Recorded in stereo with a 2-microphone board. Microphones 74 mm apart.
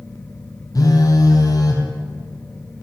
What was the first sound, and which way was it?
A phone buzzing, 55° left (ahead or behind).